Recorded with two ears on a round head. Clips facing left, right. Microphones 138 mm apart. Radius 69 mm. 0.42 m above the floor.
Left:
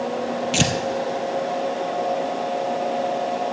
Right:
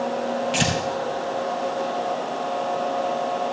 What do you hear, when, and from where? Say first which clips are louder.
0.5 s tearing paper: left 2 dB; 50° left (ahead or behind), 1.8 m